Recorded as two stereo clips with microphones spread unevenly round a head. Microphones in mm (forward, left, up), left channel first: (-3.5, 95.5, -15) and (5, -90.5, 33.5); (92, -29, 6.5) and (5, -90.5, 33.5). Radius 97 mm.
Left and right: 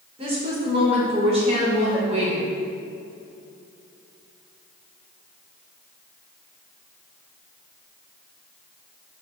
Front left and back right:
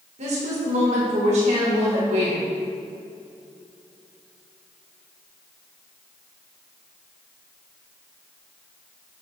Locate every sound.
0.2 s a woman speaking: 150° right, 1.9 m